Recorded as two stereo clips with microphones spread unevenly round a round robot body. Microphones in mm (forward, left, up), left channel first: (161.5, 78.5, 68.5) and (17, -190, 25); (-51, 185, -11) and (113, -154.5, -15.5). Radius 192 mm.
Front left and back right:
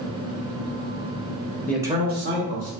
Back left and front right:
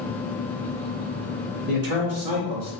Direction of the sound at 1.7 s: 25° right.